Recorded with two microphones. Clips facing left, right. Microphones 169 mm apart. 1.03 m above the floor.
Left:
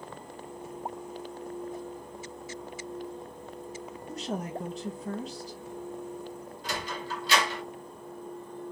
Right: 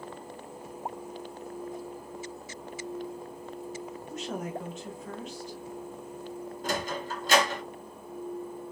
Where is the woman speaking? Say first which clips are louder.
Left 1 dB; 35° left (ahead or behind), 0.7 m.